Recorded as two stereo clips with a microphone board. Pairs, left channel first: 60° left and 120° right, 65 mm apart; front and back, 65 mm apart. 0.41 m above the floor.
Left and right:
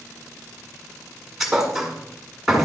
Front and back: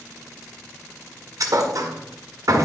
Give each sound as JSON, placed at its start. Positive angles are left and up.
{"t": 1.4, "sound": "a thud", "azimuth_deg": 155, "distance_m": 1.7}